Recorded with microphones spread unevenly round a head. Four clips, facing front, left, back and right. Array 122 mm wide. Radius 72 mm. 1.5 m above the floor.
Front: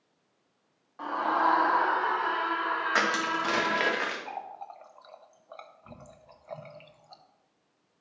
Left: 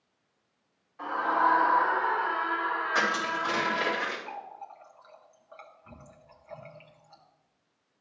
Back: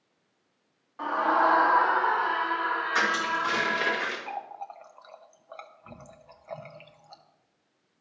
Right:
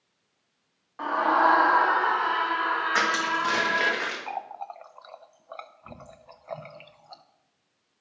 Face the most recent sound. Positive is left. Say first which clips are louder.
# right 6 dB, back 2 dB
turn(degrees=-70)